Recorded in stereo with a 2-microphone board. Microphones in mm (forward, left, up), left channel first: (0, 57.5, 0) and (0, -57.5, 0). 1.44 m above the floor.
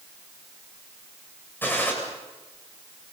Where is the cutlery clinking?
I don't hear cutlery clinking.